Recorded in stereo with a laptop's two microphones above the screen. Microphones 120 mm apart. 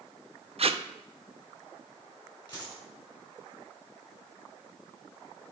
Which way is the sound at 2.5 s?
35° left (ahead or behind).